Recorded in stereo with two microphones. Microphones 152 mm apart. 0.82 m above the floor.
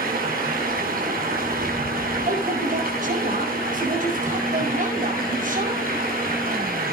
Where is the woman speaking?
60° right (ahead or behind), 5.5 m.